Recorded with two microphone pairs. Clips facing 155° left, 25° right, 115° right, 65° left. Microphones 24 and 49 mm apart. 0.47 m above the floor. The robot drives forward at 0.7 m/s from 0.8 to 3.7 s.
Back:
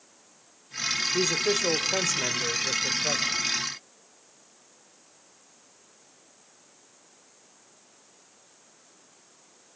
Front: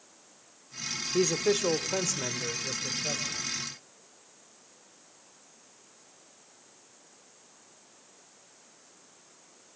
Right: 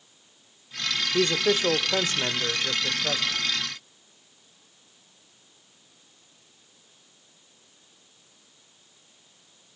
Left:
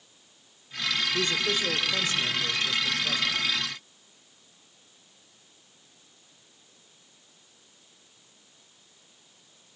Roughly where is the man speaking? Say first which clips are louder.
Front 2 dB, right 4 dB; right.